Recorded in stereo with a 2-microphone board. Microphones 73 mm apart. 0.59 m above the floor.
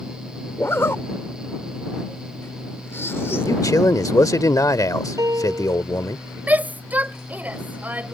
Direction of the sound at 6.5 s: 25° right (ahead or behind).